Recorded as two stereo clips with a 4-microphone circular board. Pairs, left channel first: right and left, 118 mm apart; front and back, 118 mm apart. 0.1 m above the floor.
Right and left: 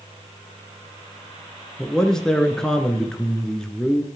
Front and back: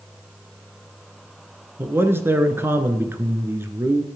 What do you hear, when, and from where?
1.8 s a man speaking: 165° right, 1.1 m